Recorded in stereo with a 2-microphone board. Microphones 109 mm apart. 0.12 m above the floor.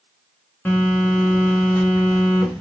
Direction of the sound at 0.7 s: 20° left (ahead or behind).